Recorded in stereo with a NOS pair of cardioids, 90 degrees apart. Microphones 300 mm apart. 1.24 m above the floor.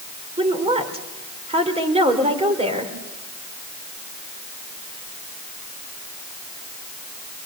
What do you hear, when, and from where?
0.4 s a woman speaking: 20° right, 4 m